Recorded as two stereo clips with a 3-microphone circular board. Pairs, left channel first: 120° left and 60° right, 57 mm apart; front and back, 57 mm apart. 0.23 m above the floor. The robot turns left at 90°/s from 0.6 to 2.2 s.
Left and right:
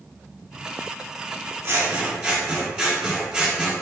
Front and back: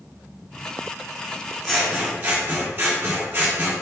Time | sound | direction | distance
1.6 | scissors | 80° right | 1.7 m